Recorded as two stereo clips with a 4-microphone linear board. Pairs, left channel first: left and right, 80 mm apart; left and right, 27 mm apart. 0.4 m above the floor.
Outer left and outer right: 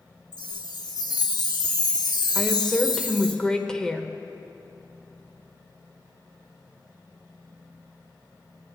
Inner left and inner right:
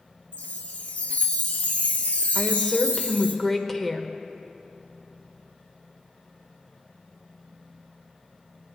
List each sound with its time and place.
0.3 s a chime: 70° left (ahead or behind), 1.1 m
2.4 s a woman speaking: 10° left (ahead or behind), 1.0 m